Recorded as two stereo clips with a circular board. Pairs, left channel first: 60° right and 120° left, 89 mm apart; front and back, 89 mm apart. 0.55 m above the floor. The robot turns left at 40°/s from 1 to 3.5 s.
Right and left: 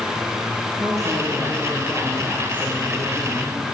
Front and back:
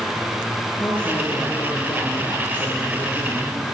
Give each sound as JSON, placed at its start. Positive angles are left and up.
{"t": 0.8, "sound": "a woman speaking", "azimuth_deg": 75, "distance_m": 8.5}